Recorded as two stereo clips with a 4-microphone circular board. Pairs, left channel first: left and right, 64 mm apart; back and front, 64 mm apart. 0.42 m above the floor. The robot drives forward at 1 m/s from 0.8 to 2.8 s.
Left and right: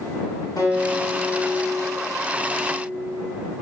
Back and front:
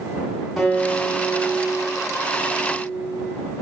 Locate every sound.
0.6 s a guitar: 85° left, 5 m; by 3.3 s 110° left, 5 m